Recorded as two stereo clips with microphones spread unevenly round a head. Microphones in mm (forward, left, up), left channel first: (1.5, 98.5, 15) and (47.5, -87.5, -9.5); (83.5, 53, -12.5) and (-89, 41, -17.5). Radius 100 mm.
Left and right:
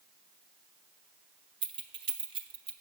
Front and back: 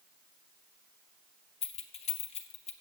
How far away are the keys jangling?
About 1.0 m.